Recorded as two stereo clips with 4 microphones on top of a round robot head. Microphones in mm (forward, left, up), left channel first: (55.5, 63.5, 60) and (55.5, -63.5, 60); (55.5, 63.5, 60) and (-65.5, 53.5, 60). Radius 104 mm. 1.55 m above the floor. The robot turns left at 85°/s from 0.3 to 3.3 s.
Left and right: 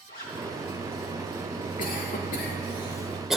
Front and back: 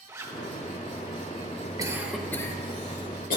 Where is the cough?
125° left, 2 m; by 3.4 s 5° right, 2 m.